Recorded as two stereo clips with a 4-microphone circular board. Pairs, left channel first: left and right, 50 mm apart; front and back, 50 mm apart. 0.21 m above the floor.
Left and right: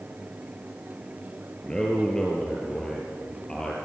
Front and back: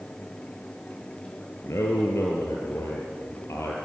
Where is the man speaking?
15° left, 4 m.